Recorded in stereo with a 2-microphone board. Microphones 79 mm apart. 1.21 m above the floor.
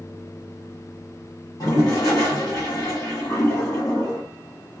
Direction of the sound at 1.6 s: 50° left (ahead or behind).